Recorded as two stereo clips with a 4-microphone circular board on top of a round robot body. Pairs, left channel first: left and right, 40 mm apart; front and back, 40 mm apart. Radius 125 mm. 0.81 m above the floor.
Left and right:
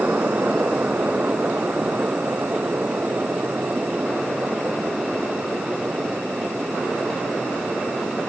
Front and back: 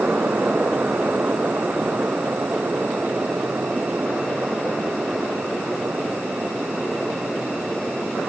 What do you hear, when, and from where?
Only background noise.